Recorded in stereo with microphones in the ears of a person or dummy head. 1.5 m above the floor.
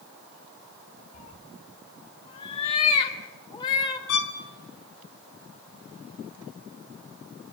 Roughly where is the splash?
I don't hear a splash.